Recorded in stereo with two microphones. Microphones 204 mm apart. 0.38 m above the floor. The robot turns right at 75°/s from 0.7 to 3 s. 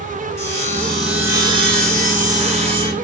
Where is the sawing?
160° left, 1.3 m; by 2.9 s 30° right, 1.3 m.